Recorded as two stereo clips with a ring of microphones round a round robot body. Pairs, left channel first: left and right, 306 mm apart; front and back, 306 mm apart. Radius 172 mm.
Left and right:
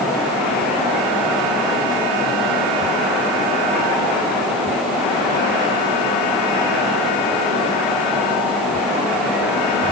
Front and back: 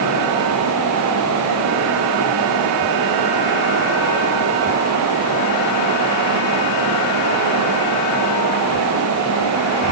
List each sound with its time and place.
Only background noise.